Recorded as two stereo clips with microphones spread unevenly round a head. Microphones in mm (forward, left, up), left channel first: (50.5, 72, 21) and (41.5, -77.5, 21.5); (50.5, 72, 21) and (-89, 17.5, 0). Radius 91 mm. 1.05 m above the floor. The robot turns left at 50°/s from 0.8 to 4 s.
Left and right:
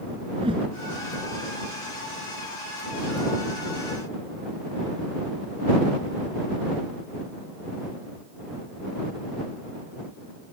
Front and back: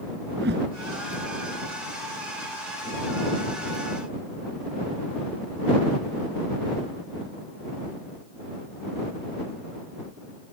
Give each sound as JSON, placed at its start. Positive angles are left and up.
{"t": 0.4, "sound": "a whoosh", "azimuth_deg": -160}